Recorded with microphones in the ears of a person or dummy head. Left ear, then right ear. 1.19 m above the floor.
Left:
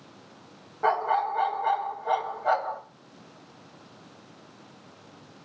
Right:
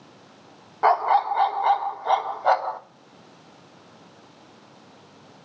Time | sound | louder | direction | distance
0.8 | a dog barking | right 5 dB | 50° right (ahead or behind) | 1.0 m